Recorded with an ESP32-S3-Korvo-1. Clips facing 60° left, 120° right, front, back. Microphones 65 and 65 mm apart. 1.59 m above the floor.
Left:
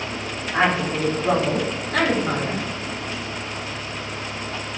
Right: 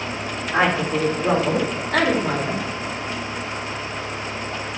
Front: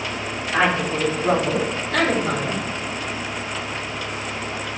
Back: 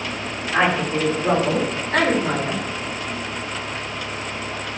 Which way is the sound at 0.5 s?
110° right.